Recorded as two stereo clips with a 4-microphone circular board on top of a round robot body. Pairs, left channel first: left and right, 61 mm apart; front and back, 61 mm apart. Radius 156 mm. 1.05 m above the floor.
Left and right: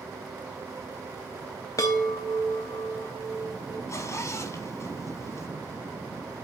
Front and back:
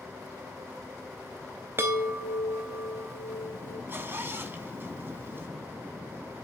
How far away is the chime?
About 0.7 m.